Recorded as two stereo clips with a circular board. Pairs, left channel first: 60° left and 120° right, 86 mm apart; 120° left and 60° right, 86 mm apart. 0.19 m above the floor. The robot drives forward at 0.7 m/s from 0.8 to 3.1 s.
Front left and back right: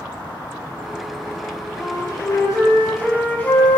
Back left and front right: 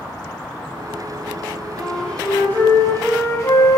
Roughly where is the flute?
Ahead left.